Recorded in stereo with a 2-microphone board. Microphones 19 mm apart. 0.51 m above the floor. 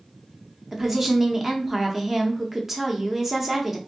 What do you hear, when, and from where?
0.7 s a woman speaking: 20° right (ahead or behind), 0.7 m